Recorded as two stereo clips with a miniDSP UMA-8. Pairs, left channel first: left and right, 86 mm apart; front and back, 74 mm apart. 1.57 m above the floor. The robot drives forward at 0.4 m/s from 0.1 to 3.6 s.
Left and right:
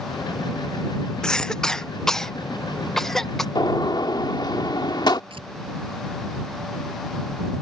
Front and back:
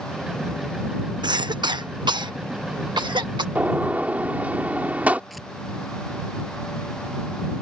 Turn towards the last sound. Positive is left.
turn(degrees=-90)